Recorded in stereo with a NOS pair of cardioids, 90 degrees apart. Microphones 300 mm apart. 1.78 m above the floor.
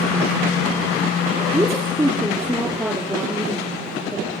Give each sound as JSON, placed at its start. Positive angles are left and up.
{"t": 1.5, "sound": "a woman speaking", "azimuth_deg": -5, "distance_m": 5.5}